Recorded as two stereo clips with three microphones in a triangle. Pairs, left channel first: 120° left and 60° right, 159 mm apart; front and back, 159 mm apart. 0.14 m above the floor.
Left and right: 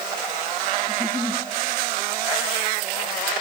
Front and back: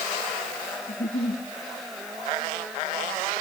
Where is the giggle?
10° left, 3 m.